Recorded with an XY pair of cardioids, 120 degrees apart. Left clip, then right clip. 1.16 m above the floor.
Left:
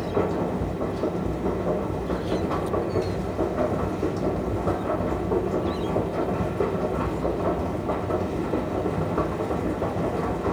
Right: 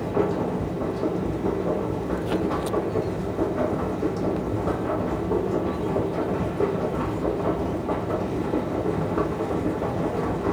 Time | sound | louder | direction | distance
0.0 | a machine running | right 1 dB | 5° right | 1.1 m